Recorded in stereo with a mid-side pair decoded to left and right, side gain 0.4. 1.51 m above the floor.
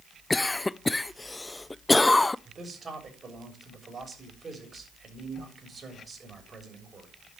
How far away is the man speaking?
About 7 m.